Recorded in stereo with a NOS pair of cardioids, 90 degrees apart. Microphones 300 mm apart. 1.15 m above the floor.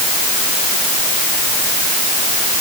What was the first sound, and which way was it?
Only background noise.